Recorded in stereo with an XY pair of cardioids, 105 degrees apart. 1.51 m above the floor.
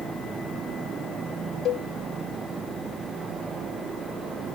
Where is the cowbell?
70° left.